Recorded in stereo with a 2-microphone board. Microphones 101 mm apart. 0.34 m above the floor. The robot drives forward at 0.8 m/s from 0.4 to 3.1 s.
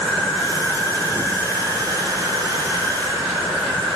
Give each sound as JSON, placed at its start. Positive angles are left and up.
{"t": 0.0, "sound": "an insect", "side_deg": 0, "distance_m": 5.5}